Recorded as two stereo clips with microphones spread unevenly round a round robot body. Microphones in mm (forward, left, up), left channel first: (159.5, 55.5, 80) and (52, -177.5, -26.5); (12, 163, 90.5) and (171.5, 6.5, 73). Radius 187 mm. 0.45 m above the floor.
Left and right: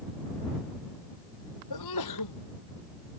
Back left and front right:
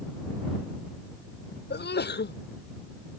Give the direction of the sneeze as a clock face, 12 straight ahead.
9 o'clock.